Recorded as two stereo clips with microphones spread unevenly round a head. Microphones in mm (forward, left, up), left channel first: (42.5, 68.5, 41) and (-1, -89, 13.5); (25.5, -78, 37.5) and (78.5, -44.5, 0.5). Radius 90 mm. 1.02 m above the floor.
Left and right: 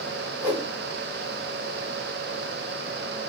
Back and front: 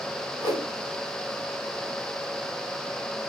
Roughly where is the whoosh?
Behind.